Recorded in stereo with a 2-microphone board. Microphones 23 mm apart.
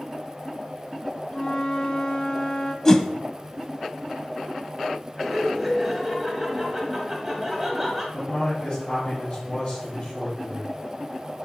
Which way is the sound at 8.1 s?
60° left (ahead or behind).